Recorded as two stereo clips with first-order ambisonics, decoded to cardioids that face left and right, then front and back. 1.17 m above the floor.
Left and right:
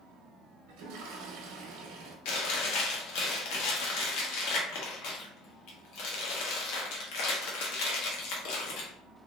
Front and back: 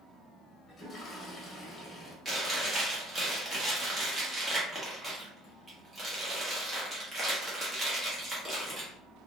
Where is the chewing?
105° left, 0.9 m.